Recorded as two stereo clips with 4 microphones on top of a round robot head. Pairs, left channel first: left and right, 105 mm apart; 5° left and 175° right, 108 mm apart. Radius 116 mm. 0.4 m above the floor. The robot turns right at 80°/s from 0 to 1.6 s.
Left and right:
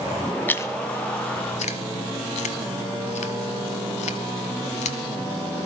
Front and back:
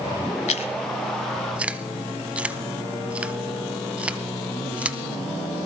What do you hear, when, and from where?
0.5 s chewing: 15° left, 0.5 m; by 5.0 s 105° left, 0.5 m